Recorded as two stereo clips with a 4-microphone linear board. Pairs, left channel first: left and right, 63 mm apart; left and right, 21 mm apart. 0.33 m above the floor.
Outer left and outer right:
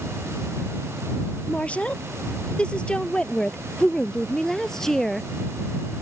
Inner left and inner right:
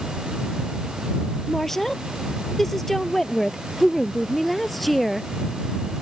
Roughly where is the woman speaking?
Left.